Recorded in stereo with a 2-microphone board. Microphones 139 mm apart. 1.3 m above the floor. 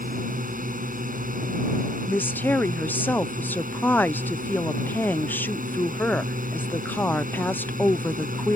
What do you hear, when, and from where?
0.0 s a drone: 85° right
2.1 s a woman speaking: 15° left (ahead or behind)